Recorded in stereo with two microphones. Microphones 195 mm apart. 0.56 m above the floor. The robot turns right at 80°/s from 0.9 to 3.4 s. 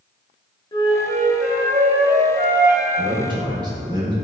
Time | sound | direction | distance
0.7 | a flute | 145° left | 0.6 m
3.0 | a man speaking | 30° right (ahead or behind) | 0.7 m